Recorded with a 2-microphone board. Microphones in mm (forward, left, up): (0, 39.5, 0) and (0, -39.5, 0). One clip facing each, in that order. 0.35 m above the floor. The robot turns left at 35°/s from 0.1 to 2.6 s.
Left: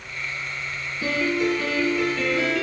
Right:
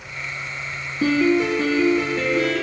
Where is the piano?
130° right, 3.5 m; by 2.6 s 175° left, 3.5 m.